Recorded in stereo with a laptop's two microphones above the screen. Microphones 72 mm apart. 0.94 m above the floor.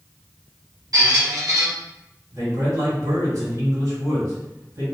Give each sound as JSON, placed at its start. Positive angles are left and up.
{"t": 0.9, "sound": "a squeak", "side_deg": -55, "distance_m": 1.0}
{"t": 2.3, "sound": "a man speaking", "side_deg": -50, "distance_m": 1.7}